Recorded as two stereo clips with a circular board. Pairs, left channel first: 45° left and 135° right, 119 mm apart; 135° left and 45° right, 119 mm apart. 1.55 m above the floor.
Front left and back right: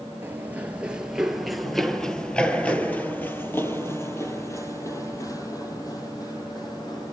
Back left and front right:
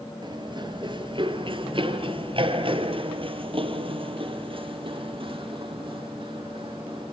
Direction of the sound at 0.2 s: 70° right.